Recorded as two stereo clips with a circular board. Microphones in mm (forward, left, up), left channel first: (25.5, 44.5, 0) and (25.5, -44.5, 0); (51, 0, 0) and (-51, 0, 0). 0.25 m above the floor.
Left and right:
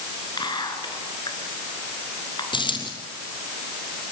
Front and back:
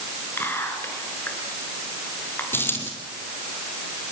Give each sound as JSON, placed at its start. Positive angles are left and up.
{"t": 0.4, "sound": "whispering", "azimuth_deg": 65, "distance_m": 4.0}
{"t": 2.5, "sound": "a dropped coin", "azimuth_deg": 70, "distance_m": 3.5}